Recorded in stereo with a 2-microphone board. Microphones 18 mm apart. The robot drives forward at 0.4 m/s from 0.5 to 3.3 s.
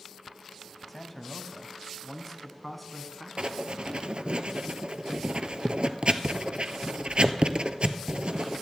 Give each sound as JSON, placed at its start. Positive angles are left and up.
{"t": 0.9, "sound": "a man speaking", "side_deg": 0, "distance_m": 1.1}
{"t": 3.4, "sound": "writing", "side_deg": -70, "distance_m": 0.8}